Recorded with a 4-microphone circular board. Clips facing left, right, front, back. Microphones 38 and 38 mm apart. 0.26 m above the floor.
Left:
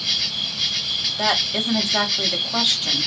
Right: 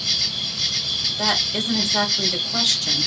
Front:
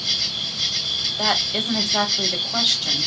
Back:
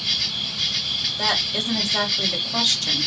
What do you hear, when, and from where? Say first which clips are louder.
0.0 s an insect: left 1 dB, even; 140° left, 1.6 m
1.1 s a woman speaking: left 2 dB, front 2 dB; 55° left, 1.4 m